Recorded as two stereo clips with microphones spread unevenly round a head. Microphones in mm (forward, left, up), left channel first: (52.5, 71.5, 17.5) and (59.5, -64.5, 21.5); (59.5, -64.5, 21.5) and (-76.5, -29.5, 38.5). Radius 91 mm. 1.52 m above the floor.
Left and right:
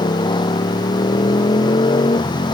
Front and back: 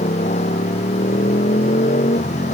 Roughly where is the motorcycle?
Ahead left.